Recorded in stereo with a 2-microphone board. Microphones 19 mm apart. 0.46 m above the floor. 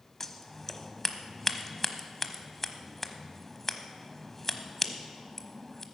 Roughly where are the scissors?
Centre.